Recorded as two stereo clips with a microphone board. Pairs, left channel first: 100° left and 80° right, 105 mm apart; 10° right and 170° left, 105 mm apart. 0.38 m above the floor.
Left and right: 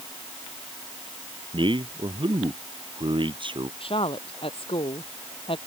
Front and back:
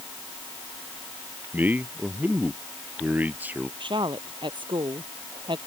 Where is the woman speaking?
130° left.